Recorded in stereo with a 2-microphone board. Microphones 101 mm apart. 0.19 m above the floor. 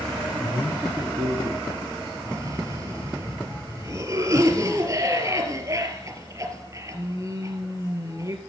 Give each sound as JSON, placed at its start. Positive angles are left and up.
{"t": 0.4, "sound": "a man speaking", "side_deg": 20, "distance_m": 1.0}
{"t": 2.2, "sound": "a cough", "side_deg": -35, "distance_m": 3.5}